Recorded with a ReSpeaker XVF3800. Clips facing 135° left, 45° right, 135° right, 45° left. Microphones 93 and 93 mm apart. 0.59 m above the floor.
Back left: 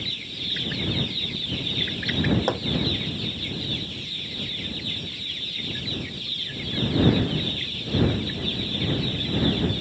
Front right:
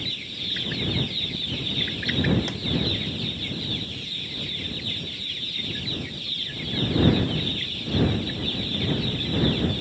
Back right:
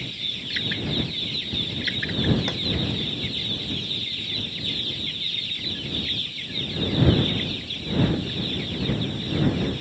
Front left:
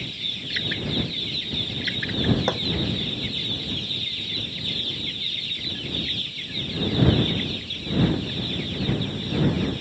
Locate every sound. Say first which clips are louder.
2.5 s hammering: back left 8 dB, front left 6 dB; 100° left